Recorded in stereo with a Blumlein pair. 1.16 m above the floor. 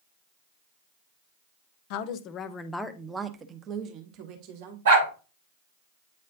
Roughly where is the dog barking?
Ahead right.